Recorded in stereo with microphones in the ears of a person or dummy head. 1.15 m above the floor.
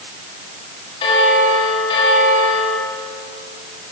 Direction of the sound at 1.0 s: 30° left (ahead or behind).